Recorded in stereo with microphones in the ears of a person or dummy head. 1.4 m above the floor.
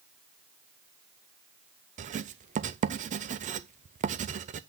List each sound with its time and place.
2.0 s writing: 40° right (ahead or behind), 0.5 m